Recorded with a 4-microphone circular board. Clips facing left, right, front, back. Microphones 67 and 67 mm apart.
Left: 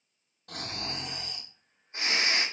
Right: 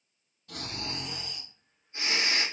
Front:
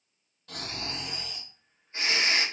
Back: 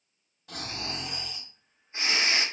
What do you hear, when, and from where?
0.5 s snoring: 100° left, 2.5 m